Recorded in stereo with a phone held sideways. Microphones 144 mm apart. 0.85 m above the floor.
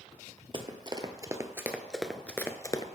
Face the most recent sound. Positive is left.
turn(degrees=30)  # may be behind; listen again after turning